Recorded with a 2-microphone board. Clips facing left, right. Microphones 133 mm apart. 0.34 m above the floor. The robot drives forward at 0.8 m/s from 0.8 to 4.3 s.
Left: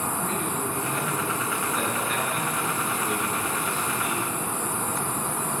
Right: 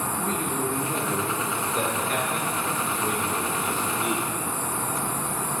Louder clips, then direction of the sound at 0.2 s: Right 1 dB; 40° right (ahead or behind).